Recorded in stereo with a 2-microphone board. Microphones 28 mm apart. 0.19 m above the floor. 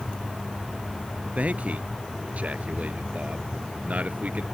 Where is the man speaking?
65° right (ahead or behind).